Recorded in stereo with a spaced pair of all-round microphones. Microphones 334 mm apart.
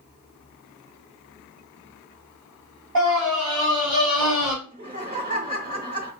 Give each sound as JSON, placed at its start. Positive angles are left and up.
{"t": 3.0, "sound": "a scream", "side_deg": -70, "distance_m": 3.0}
{"t": 4.6, "sound": "laughter", "side_deg": -25, "distance_m": 0.9}